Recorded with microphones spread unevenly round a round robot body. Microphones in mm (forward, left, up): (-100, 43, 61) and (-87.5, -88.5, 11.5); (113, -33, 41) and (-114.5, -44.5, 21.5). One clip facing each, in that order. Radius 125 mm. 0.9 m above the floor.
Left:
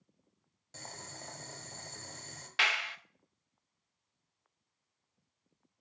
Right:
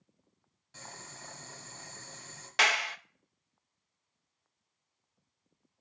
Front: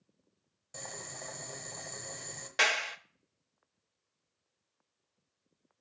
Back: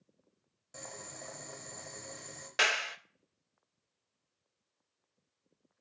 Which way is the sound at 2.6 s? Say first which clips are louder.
Right 6 dB, front 1 dB; 95° right.